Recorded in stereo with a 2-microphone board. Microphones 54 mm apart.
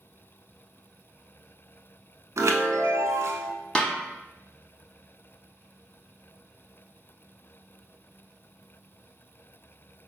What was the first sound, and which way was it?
A chime, 75° right (ahead or behind).